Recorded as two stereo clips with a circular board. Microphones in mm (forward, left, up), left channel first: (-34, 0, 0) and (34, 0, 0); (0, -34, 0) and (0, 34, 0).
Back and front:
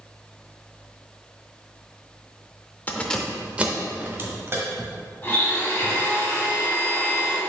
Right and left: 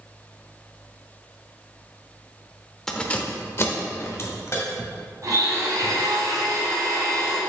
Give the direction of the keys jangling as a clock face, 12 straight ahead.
5 o'clock.